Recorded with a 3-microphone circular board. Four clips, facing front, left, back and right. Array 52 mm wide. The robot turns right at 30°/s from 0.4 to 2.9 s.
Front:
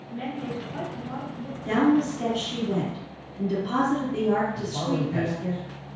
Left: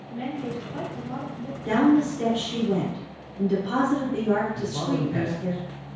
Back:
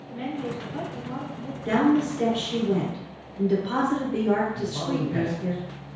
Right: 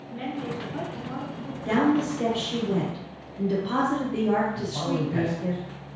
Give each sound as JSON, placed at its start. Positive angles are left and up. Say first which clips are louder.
{"t": 0.1, "sound": "a woman speaking", "louder": "left 1 dB, back 1 dB", "azimuth_deg": -80, "distance_m": 1.2}
{"t": 1.6, "sound": "a woman speaking", "louder": "left 3 dB, even", "azimuth_deg": 155, "distance_m": 1.5}
{"t": 4.5, "sound": "a man speaking", "louder": "left 1 dB, even", "azimuth_deg": 160, "distance_m": 1.9}